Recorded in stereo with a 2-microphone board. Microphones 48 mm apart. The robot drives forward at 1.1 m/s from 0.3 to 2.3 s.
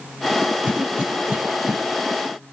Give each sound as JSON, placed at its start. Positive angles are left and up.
{"t": 0.6, "sound": "a cough", "side_deg": -25, "distance_m": 5.0}